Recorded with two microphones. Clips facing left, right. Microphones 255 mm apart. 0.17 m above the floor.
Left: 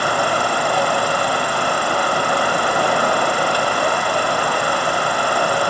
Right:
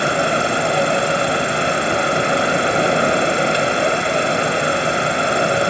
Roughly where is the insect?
Right.